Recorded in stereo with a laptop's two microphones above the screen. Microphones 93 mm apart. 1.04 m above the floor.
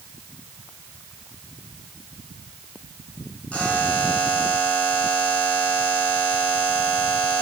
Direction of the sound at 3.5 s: 10° left (ahead or behind).